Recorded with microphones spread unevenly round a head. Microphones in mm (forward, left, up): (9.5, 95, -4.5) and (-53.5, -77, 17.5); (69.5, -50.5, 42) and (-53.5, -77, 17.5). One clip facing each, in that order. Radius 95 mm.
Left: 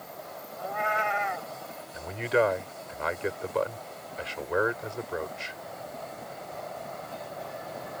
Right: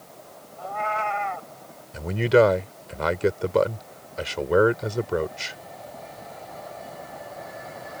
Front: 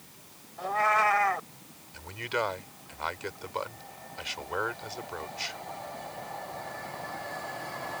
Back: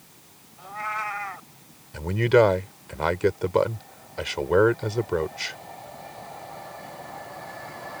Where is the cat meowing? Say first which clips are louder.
Right 2 dB, front 7 dB; 5° right.